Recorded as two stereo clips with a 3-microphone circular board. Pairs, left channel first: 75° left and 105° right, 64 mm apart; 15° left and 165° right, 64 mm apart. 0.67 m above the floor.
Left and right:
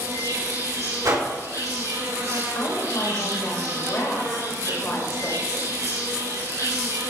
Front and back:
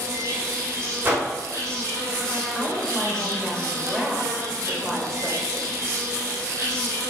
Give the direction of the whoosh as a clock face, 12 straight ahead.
4 o'clock.